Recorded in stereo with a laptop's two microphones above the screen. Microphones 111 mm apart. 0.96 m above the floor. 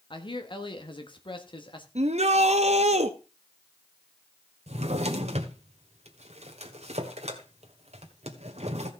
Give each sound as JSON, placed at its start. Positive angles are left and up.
{"t": 0.1, "sound": "a man speaking", "side_deg": 45, "distance_m": 1.5}
{"t": 1.9, "sound": "a shout", "side_deg": -75, "distance_m": 1.0}
{"t": 4.7, "sound": "a drawer", "side_deg": -80, "distance_m": 1.6}